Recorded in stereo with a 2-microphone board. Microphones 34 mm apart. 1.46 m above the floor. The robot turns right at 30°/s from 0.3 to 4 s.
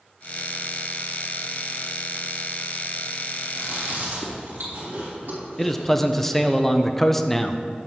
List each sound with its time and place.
3.5 s chewing: 90° right, 2.5 m; by 6.6 s 75° right (ahead or behind), 2.5 m
5.6 s a man speaking: 10° left (ahead or behind), 0.5 m